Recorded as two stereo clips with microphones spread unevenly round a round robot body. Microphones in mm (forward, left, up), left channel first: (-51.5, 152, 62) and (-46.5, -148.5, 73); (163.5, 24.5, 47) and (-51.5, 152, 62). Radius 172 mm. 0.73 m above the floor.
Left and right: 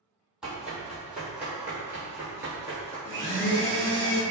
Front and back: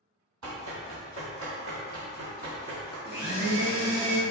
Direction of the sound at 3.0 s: 145° left.